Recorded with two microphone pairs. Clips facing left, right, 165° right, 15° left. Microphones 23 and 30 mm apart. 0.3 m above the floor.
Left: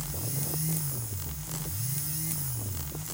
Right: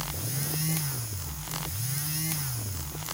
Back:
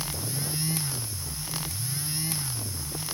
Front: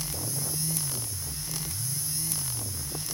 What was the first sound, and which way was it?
Only background noise.